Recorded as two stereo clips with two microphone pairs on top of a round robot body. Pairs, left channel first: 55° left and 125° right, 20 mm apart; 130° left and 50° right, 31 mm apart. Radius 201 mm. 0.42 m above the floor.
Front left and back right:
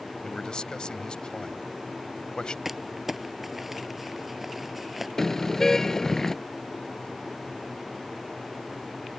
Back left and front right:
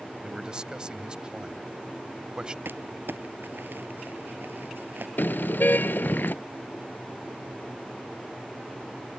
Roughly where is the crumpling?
Ahead right.